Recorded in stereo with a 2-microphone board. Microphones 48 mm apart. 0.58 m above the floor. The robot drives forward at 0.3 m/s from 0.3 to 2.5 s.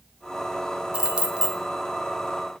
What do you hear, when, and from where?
0.9 s keys jangling: 20° right (ahead or behind), 0.6 m